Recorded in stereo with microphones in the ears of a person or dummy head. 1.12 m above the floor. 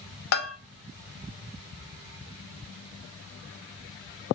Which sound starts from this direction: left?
A bell, at 0.3 s.